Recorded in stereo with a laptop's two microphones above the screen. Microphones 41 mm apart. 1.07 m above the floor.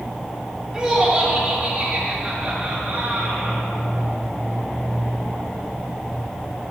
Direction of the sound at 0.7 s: 15° right (ahead or behind).